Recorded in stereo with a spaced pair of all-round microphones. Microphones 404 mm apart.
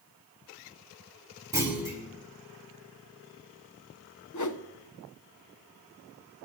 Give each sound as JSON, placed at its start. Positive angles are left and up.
{"t": 1.5, "sound": "a clunk", "side_deg": -10, "distance_m": 3.0}
{"t": 4.3, "sound": "a whoosh", "side_deg": 50, "distance_m": 0.5}